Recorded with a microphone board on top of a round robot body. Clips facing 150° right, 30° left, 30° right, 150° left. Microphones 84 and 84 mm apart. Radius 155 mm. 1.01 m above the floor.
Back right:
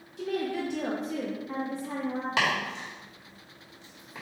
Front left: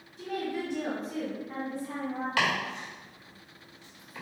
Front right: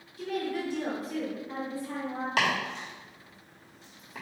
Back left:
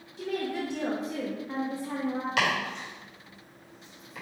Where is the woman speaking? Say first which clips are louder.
Back right 3 dB, back left 1 dB; 145° right, 0.8 m.